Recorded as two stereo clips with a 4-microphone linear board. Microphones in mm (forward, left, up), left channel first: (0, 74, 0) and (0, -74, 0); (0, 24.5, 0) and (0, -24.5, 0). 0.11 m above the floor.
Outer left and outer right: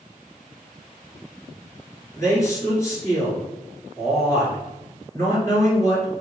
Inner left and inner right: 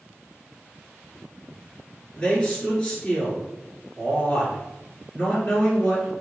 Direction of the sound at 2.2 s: 20° left (ahead or behind).